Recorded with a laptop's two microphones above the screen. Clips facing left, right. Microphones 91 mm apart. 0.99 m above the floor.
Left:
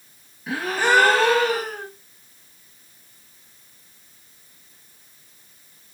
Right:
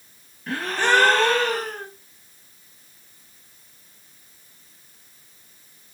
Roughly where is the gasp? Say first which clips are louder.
Left 1 dB; centre.